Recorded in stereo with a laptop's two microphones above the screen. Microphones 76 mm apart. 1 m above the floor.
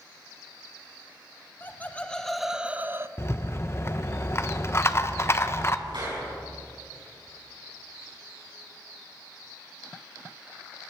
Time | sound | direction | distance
1.6 | laughter | 25° left (ahead or behind) | 0.9 m
3.2 | a rattle | 35° left (ahead or behind) | 0.5 m
5.9 | a clap | 85° right | 6.5 m